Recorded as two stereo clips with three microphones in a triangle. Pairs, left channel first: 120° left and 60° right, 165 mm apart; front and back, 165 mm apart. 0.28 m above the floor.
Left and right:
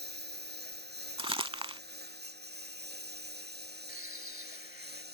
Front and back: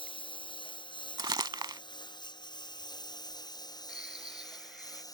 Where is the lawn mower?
60° right; by 5.1 s 70° right.